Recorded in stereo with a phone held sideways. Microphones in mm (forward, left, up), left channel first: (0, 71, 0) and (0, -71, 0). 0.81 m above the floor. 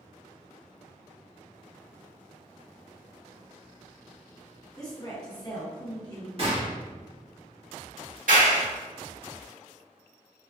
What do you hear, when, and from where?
4.8 s a woman speaking: 25° left (ahead or behind), 1.2 m; by 6.3 s 30° left (ahead or behind), 1.1 m
6.4 s a gunshot: 45° right (ahead or behind), 1.3 m
8.3 s a clap: 75° right (ahead or behind), 1.8 m